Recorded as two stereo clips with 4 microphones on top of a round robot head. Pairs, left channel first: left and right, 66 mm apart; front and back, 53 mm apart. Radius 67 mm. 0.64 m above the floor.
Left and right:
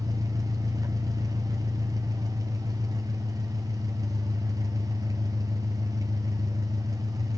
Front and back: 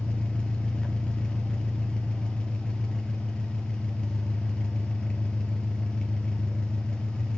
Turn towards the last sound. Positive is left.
turn(degrees=-75)